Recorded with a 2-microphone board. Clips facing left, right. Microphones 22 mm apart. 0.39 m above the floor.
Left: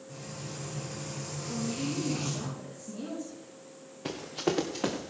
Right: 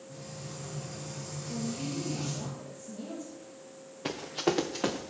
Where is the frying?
65° left (ahead or behind), 7 m.